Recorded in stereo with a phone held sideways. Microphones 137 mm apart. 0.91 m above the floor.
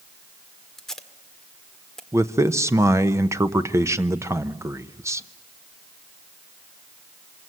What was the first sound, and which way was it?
Tape being pulled, 5° left (ahead or behind).